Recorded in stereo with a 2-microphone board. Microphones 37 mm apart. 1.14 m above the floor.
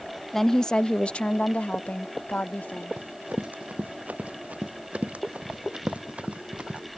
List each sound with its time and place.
0.3 s a woman speaking: 10° left (ahead or behind); by 3.0 s 55° left (ahead or behind)
3.0 s running footsteps: 45° right (ahead or behind); by 6.8 s 35° right (ahead or behind)